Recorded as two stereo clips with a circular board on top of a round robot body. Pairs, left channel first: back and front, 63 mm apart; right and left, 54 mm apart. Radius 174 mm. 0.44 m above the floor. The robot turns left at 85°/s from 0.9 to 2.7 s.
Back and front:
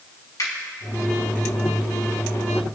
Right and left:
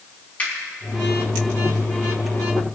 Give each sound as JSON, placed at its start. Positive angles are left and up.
{"t": 0.4, "sound": "a finger snap", "azimuth_deg": -155, "distance_m": 4.5}